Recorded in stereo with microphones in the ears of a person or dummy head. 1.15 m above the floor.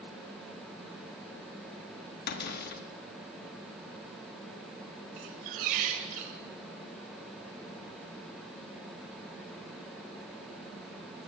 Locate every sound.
2.3 s a cupboard door: 60° left (ahead or behind), 1.4 m
5.2 s a squeak: 50° right (ahead or behind), 1.5 m